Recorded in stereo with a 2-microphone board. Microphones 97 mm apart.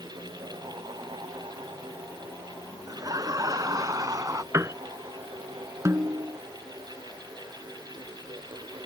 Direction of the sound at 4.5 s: 30° right (ahead or behind).